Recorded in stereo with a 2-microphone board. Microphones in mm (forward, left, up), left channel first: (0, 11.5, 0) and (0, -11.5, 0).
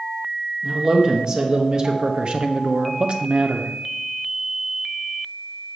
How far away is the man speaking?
About 1.7 m.